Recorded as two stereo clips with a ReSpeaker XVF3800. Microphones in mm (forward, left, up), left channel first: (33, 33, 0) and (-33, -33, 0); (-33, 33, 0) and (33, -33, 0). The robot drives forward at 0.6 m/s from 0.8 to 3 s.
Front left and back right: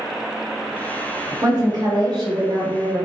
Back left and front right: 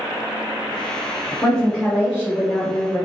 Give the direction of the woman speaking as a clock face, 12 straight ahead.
4 o'clock.